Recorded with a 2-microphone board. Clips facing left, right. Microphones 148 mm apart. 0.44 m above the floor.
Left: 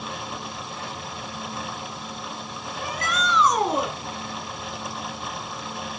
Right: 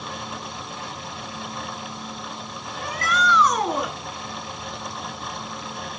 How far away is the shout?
About 6 m.